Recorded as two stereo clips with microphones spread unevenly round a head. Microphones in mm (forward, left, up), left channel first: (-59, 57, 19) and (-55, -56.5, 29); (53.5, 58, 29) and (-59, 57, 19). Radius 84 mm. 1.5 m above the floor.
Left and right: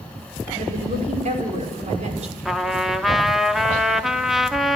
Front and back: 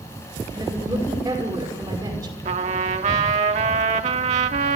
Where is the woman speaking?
110° right, 6 m.